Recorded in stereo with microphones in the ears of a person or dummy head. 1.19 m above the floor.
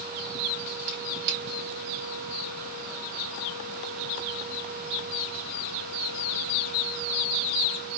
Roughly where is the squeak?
Right.